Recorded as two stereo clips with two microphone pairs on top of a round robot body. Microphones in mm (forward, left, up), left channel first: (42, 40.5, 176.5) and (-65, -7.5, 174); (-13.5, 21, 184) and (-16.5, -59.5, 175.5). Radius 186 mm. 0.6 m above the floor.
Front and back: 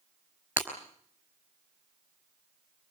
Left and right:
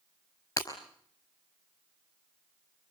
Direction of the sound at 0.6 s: 130° left.